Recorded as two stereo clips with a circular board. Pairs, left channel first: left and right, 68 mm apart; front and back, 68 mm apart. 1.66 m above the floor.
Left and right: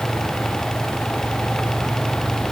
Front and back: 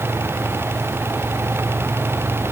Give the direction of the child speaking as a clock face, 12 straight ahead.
No child speaking in this recording.